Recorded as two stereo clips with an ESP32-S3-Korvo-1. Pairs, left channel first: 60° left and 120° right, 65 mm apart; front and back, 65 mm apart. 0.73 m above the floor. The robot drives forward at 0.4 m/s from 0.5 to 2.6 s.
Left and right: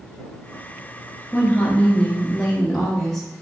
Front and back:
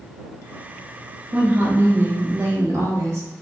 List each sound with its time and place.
1.3 s a woman speaking: 120° left, 0.9 m; by 3.3 s 145° left, 1.2 m